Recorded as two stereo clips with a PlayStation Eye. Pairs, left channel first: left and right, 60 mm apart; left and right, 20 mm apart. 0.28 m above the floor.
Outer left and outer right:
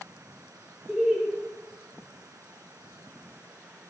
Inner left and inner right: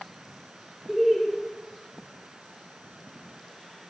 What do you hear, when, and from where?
0.9 s laughter: 10° right (ahead or behind), 6.5 m